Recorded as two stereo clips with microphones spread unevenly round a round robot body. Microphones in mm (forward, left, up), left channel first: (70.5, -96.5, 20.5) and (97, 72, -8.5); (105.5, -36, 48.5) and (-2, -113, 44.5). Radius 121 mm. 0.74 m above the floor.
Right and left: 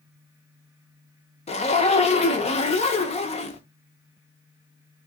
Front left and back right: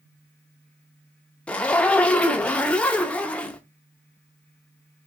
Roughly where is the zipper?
Ahead right.